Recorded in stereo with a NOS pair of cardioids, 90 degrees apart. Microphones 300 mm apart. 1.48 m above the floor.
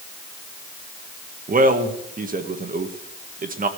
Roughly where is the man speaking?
Ahead right.